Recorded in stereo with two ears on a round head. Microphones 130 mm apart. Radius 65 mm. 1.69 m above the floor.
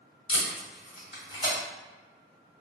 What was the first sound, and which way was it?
Tape being pulled, 40° left (ahead or behind).